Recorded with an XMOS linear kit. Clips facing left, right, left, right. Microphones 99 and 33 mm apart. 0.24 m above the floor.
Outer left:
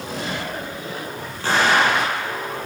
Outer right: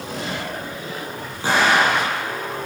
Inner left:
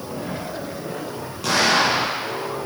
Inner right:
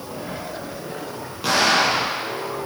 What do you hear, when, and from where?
1.4 s an explosion: 15° right (ahead or behind), 7.5 m